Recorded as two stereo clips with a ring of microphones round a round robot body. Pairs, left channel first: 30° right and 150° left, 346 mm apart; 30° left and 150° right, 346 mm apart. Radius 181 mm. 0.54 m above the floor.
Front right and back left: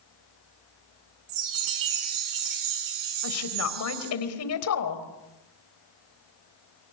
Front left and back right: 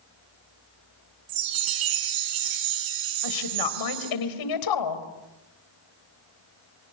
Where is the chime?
175° right, 3.5 m.